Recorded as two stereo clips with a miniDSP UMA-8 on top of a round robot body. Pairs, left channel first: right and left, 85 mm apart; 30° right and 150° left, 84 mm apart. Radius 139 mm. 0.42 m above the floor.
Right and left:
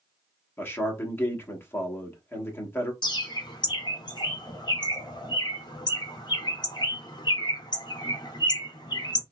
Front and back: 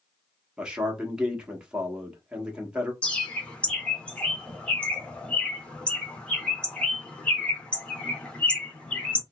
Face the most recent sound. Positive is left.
turn(degrees=-105)